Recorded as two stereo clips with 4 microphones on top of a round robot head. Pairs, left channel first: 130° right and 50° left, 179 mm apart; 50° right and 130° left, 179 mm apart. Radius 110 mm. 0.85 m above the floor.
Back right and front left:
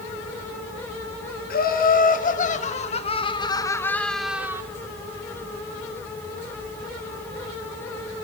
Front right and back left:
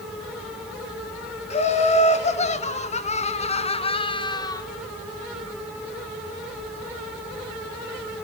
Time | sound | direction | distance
1.5 | laughter | 100° right | 2 m